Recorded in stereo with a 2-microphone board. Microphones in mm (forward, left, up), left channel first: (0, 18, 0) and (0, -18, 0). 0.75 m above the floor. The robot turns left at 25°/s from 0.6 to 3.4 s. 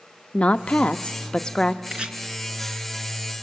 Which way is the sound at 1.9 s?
30° right (ahead or behind).